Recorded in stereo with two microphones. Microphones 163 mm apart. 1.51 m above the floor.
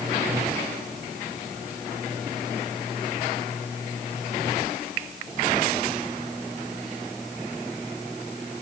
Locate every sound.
Only background noise.